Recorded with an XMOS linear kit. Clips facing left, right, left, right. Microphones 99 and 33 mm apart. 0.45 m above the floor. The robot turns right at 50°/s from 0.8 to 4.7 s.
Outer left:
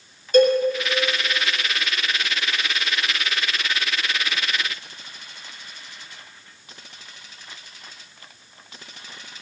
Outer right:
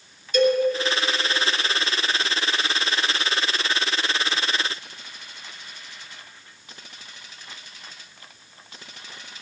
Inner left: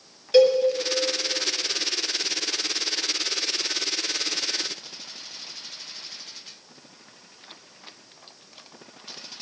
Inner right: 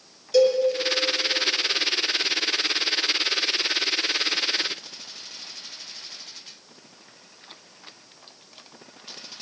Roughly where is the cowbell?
Left.